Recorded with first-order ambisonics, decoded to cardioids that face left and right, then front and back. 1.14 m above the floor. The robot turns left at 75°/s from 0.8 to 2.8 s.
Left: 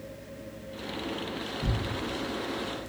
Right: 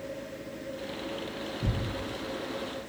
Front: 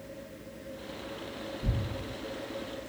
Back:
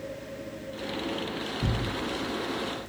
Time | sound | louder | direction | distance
1.6 | tearing paper | left 2 dB, back 7 dB | 165° right | 0.5 m